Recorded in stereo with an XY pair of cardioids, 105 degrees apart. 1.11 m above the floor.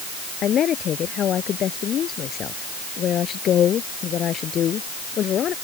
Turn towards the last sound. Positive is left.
turn(degrees=60)